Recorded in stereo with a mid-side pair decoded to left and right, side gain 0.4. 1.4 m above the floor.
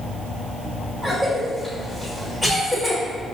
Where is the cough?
10° right, 1.7 m.